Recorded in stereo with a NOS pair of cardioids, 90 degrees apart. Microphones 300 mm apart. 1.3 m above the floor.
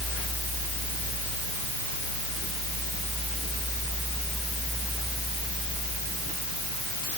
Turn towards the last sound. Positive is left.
No sound to turn to.